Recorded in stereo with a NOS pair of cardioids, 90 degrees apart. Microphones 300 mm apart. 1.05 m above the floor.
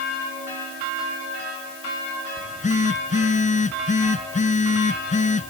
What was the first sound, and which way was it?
A phone buzzing, 25° left.